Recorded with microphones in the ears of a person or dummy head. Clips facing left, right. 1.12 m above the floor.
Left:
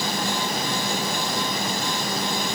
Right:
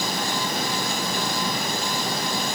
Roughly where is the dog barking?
I don't hear a dog barking.